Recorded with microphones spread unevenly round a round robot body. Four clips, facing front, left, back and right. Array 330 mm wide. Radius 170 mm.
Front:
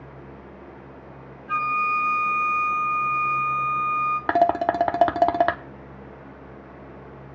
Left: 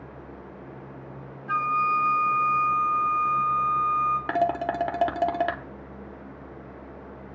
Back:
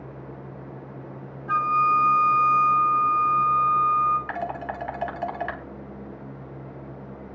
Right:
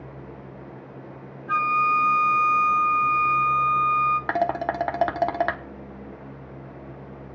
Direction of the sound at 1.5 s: 155° left.